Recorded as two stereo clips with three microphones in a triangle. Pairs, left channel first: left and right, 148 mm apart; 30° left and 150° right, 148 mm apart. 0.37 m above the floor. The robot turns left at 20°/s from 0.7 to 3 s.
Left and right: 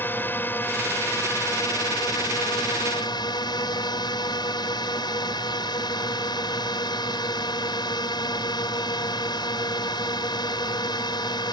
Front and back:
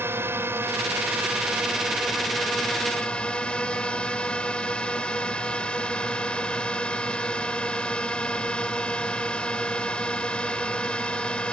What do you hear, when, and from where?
0.0 s a drone: 150° left; by 11.5 s 105° left